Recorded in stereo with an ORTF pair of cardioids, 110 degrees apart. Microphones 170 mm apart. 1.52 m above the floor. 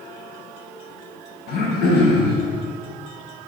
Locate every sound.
1.5 s throat clearing: 65° left, 1.8 m